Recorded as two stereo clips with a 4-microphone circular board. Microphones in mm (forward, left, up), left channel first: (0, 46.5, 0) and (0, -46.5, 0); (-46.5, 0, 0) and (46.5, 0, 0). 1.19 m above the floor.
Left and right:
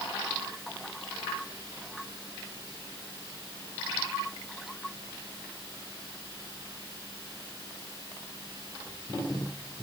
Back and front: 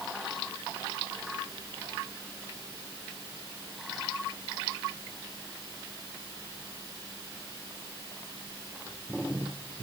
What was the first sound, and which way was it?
Only background noise.